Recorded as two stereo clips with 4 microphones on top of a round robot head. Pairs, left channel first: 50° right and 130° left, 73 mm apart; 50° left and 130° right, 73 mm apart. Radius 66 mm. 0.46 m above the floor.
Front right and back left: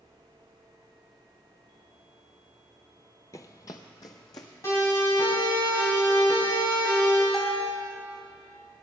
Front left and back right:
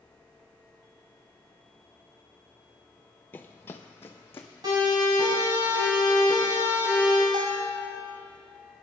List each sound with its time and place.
3.3 s running footsteps: 10° right, 0.5 m
4.6 s a siren: 105° right, 5.5 m
7.3 s a bell: 140° right, 1.9 m